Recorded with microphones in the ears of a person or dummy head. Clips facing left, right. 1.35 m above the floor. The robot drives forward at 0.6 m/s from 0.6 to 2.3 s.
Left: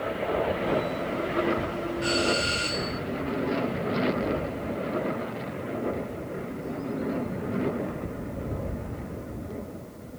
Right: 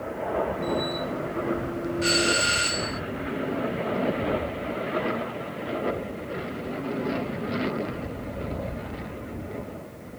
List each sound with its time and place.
2.0 s a doorbell: 20° right (ahead or behind)